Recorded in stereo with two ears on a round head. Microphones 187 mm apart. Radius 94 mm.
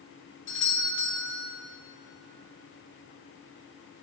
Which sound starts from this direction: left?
A doorbell, at 0.5 s.